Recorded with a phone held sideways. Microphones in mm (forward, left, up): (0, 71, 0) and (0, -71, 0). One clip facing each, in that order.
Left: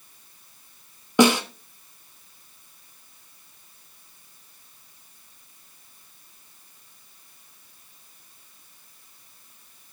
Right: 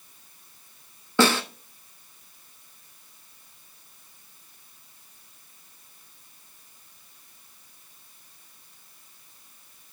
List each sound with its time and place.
1.2 s a snare drum: 15° left (ahead or behind), 1.2 m